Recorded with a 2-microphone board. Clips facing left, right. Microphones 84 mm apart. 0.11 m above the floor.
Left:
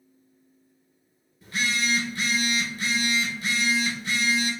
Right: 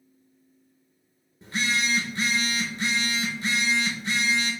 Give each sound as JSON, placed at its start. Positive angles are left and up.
{"t": 1.4, "sound": "a phone buzzing", "side_deg": -30, "distance_m": 0.6}